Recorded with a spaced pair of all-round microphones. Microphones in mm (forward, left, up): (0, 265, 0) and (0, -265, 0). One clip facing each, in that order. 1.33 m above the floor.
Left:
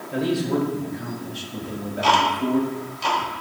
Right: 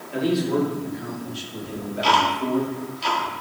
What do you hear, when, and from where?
0.1 s a man speaking: 70° left (ahead or behind), 3.5 m; by 2.6 s 40° left (ahead or behind), 1.9 m
1.6 s ticking: 70° left (ahead or behind), 1.6 m